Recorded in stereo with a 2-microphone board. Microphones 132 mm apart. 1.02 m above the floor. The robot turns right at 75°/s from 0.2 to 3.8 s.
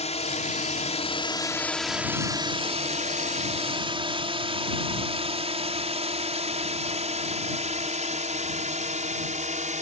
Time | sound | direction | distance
0.0 | a drone | 60° left (ahead or behind) | ?